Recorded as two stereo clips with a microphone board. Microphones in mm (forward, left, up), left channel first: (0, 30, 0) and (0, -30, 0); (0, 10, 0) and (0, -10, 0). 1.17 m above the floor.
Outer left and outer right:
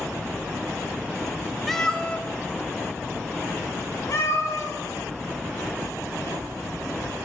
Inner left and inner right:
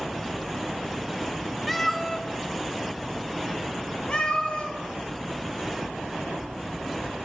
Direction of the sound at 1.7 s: Centre (ahead or behind).